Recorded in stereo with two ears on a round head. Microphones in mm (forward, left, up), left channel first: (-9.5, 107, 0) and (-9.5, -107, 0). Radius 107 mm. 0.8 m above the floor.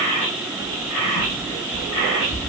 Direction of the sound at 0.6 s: 80° left.